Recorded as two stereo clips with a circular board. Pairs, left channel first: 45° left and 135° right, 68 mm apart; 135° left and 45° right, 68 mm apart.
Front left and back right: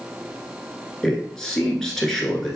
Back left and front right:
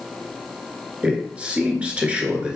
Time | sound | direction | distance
1.0 | a man speaking | 20° right | 1.1 m